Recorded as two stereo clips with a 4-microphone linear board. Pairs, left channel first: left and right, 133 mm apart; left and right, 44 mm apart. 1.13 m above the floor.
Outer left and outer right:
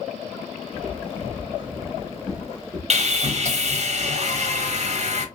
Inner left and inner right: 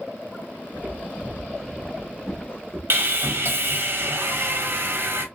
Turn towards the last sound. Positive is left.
turn(degrees=-55)  # may be behind; listen again after turning